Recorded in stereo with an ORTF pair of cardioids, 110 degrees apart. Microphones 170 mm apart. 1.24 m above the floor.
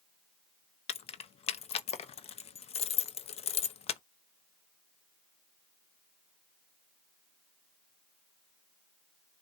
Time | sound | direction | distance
0.9 | keys jangling | 40° left | 0.8 m